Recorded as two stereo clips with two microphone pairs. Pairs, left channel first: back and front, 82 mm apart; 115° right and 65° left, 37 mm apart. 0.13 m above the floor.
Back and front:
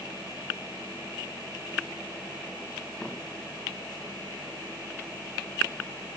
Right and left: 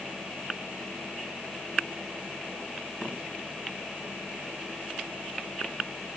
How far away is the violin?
No violin in this recording.